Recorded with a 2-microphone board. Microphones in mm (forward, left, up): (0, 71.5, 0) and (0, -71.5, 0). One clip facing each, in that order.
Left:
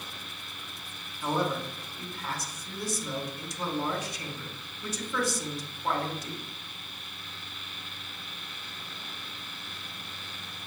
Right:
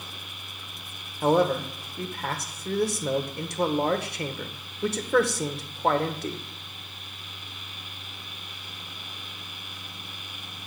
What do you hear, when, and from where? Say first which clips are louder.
1.2 s a man speaking: right 8 dB; 65° right (ahead or behind), 1.2 m